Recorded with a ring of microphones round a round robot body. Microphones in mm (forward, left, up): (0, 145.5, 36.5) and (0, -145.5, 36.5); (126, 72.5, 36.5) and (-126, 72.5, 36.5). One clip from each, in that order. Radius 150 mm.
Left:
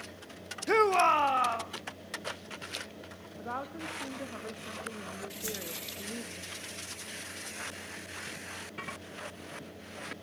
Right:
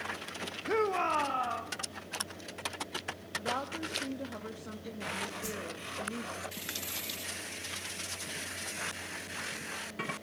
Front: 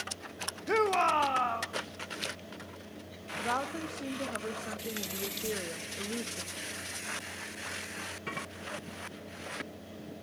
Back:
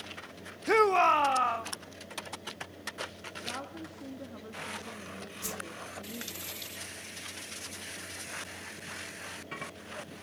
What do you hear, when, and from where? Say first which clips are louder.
0.7 s a shout: left 6 dB, back 4 dB; 135° left, 0.5 m; by 1.7 s 130° left, 2 m
3.4 s a woman speaking: right 1 dB, front 8 dB; 15° left, 1.4 m
5.4 s a whoosh: left 1 dB, front 2 dB; 145° left, 0.8 m